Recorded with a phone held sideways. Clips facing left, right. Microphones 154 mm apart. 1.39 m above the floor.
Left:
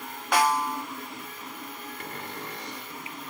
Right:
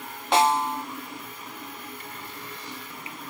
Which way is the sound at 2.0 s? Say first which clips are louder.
Left 3 dB; 65° left (ahead or behind).